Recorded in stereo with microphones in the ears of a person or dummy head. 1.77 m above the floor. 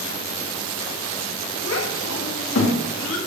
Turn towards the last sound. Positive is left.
turn(degrees=75)  # may be behind; listen again after turning